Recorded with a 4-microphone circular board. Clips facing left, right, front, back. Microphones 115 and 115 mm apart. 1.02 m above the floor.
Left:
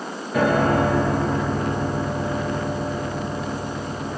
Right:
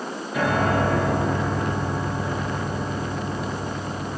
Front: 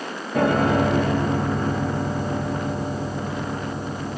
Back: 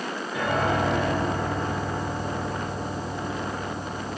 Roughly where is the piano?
Ahead left.